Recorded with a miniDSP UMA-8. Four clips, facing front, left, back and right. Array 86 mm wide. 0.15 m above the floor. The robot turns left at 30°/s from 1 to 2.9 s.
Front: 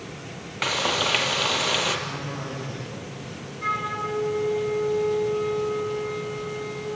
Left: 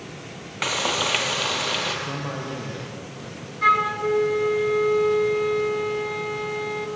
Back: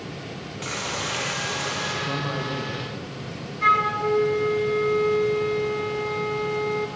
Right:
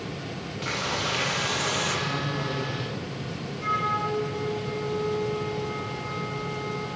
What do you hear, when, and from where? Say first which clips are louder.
0.6 s frying: left 5 dB, front 6 dB; 50° left, 3 m; by 2.0 s 20° left, 3 m
2.1 s a man speaking: right 1 dB, back 5 dB; 150° left, 8.5 m; by 3.5 s 125° left, 8.5 m
3.6 s a flute: left 7 dB, back 7 dB; 125° left, 2 m